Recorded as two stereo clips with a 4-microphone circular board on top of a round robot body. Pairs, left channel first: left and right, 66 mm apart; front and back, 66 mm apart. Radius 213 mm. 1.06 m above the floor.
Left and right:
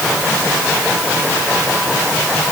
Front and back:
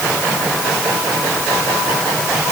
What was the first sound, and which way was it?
Only background noise.